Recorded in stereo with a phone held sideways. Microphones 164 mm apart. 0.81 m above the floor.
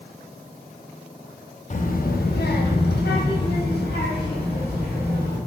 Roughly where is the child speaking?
Left.